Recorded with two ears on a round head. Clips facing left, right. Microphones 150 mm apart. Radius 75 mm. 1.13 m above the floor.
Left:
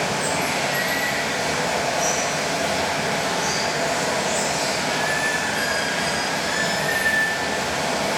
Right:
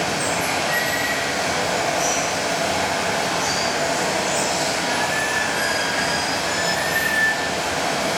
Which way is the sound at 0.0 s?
60° right (ahead or behind).